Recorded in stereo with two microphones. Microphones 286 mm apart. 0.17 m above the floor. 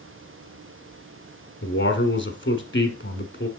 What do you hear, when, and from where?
1.6 s a man speaking: 45° left (ahead or behind), 1.4 m